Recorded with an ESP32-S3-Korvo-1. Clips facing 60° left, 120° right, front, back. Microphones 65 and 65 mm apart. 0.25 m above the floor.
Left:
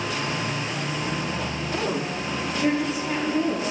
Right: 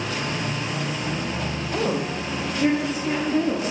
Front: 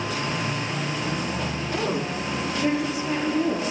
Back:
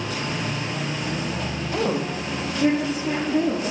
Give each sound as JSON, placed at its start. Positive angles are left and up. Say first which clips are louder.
{"t": 1.7, "sound": "a woman speaking", "louder": "right 3 dB, back 3 dB", "azimuth_deg": -160, "distance_m": 8.0}